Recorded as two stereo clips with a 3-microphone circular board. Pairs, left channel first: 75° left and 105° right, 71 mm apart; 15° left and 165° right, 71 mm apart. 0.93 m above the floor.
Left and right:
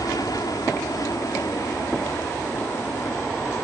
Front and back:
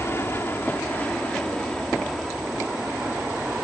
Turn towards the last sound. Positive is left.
turn(degrees=125)